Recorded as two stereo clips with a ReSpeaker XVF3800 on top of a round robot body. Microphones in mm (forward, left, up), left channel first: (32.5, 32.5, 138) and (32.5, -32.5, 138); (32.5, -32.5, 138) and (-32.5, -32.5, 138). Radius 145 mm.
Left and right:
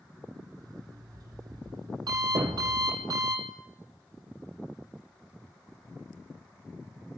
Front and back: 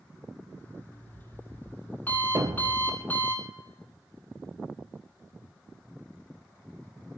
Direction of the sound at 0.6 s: 65° right.